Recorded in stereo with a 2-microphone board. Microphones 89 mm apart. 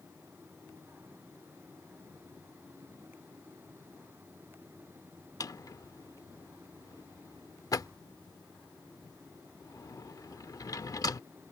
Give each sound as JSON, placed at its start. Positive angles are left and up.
{"t": 5.4, "sound": "a drawer", "side_deg": 40}